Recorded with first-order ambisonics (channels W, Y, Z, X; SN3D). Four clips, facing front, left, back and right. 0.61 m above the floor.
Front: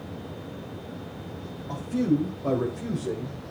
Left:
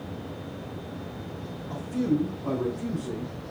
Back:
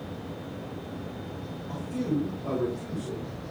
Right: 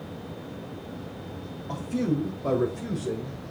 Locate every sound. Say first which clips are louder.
1.7 s a man speaking: left 1 dB, front 5 dB; 65° right, 3.5 m; by 3.4 s 40° right, 2 m